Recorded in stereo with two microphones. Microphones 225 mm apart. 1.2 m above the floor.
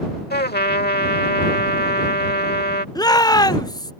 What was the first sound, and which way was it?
A trumpet, 45° left (ahead or behind).